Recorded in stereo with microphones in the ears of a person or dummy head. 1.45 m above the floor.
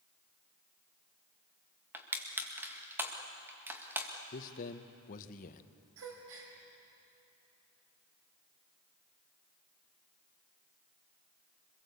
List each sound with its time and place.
1.9 s crushing: 10° right (ahead or behind), 1.9 m
4.3 s a man speaking: 50° left (ahead or behind), 1.1 m
6.0 s a gasp: 75° right (ahead or behind), 4 m